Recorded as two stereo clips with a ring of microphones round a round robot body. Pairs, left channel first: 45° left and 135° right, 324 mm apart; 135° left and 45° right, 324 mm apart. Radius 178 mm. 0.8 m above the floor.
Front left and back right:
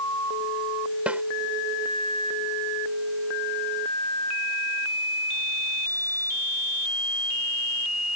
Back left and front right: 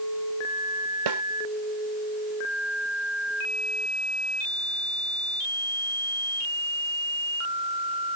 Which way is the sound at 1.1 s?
50° right.